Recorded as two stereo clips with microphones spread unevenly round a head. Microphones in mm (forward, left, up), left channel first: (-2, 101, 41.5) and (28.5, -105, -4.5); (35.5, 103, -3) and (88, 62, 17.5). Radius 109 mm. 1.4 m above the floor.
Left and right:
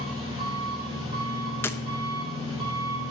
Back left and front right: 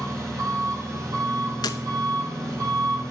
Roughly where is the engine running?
Ahead.